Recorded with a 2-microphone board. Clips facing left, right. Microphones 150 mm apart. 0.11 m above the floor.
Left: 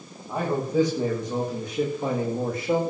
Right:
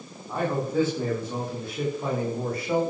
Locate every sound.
0.3 s a man speaking: 10° left (ahead or behind), 8 m; by 2.8 s 25° left (ahead or behind), 7.5 m